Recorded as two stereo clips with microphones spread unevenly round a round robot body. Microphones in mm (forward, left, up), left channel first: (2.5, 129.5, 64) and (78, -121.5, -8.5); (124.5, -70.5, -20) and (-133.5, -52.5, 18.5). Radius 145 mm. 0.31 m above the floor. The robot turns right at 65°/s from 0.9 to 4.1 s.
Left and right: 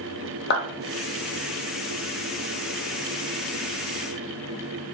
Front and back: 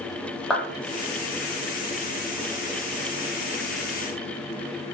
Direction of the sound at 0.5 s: 65° left.